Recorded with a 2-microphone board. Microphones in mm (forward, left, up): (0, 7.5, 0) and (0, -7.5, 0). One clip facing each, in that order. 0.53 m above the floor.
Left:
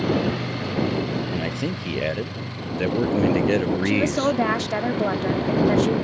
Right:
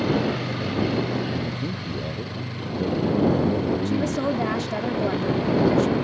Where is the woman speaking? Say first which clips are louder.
Left 3 dB; 30° left (ahead or behind).